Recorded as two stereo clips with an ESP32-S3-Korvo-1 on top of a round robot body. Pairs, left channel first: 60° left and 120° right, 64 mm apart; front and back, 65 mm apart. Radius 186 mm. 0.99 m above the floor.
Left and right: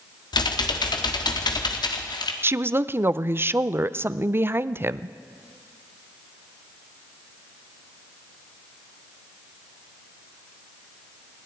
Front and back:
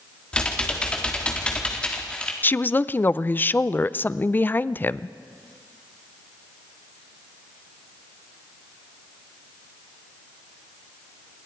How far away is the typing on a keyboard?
About 1.6 m.